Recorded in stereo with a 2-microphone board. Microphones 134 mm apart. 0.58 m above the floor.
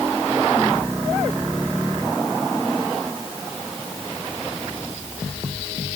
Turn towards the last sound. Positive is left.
No sound to turn to.